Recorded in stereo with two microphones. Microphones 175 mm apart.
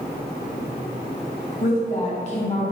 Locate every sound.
1.6 s a woman speaking: 45° left (ahead or behind), 1.9 m